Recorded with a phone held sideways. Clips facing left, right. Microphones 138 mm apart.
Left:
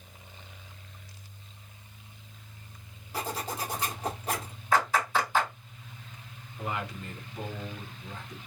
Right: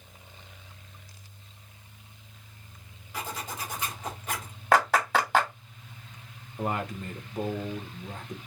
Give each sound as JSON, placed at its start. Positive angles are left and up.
{"t": 3.1, "sound": "a zipper", "side_deg": 35, "distance_m": 1.3}
{"t": 4.7, "sound": "a clap", "side_deg": -75, "distance_m": 2.0}
{"t": 6.6, "sound": "a man speaking", "side_deg": -50, "distance_m": 1.1}